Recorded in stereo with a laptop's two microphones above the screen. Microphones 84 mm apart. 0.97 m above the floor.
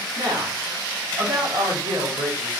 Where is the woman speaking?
65° right (ahead or behind), 1.5 m.